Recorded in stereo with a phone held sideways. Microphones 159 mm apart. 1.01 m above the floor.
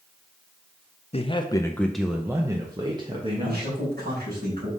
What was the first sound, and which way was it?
A man speaking, 40° left (ahead or behind).